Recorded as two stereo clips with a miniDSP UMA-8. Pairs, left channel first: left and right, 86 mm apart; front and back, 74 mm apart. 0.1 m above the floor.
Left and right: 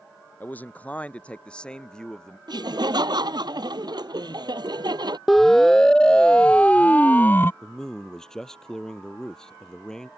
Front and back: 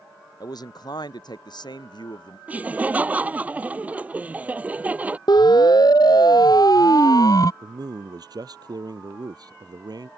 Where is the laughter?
115° right.